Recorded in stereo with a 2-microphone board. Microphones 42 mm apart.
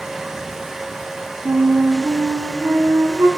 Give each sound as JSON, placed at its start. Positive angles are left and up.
{"t": 1.4, "sound": "a flute", "side_deg": -80, "distance_m": 2.0}